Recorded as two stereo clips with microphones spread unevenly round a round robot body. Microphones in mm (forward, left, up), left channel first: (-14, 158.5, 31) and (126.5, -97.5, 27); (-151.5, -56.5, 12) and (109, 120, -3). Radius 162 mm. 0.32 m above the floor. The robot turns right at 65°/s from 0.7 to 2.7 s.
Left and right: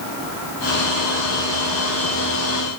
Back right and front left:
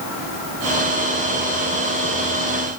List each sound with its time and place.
Only background noise.